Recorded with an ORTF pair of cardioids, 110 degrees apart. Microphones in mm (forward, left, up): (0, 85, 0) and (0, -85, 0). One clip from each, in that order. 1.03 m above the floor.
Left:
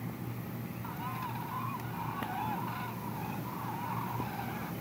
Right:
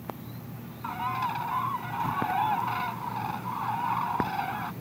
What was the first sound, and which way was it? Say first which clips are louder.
A bird: right 11 dB; 55° right.